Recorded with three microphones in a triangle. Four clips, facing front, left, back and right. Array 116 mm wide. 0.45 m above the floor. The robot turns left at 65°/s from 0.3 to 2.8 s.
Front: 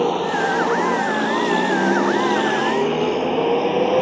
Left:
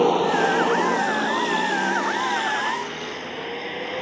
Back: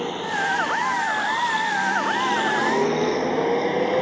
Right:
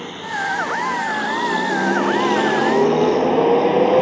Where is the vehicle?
60° left; by 4.0 s 70° right.